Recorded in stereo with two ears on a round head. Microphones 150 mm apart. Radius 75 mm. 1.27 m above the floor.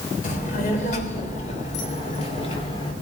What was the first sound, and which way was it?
A child speaking, 50° left (ahead or behind).